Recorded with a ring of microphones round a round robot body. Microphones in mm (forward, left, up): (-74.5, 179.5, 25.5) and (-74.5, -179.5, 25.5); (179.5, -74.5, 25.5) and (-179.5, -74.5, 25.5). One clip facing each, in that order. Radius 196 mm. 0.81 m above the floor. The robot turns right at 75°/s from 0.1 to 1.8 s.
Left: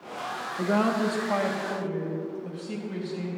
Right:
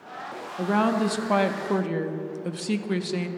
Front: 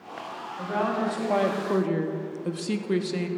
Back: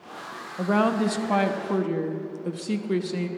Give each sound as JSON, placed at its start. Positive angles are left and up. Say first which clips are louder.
{"t": 0.6, "sound": "a woman speaking", "louder": "right 1 dB, back 5 dB", "azimuth_deg": 180, "distance_m": 0.9}